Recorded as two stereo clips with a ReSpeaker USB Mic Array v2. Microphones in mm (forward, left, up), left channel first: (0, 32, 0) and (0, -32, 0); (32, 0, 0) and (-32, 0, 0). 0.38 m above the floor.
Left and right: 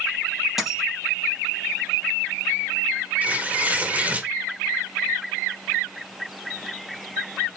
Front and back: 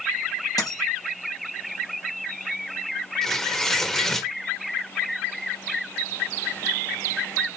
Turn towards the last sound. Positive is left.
turn(degrees=-75)